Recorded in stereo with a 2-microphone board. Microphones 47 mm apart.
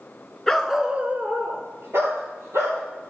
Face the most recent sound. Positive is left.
turn(degrees=-85)